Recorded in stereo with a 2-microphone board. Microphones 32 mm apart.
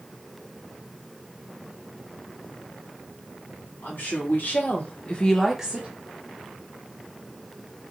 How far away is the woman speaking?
About 1.5 m.